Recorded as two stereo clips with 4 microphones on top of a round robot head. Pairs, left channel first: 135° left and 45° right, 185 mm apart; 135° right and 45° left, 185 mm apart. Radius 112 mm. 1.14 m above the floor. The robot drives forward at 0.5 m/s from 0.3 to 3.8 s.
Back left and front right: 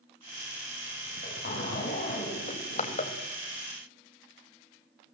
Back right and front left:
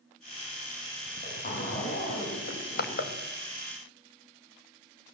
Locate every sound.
1.1 s a zipper: straight behind, 5.5 m
2.5 s crushing: 170° right, 1.7 m